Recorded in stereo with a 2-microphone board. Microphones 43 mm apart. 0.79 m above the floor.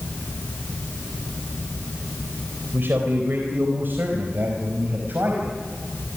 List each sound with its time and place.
2.7 s a man speaking: 55° right (ahead or behind), 4 m; by 5.6 s 50° right (ahead or behind), 5.5 m